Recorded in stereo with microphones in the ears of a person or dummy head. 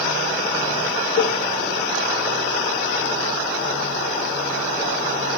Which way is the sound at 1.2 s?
50° left (ahead or behind).